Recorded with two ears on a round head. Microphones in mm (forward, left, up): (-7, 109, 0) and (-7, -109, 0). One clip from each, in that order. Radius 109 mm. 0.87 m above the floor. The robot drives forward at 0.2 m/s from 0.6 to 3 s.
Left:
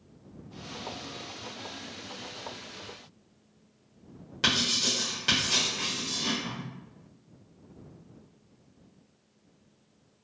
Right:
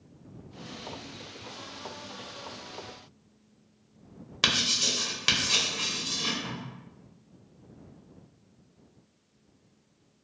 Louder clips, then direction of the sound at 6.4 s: Even; 35° right (ahead or behind).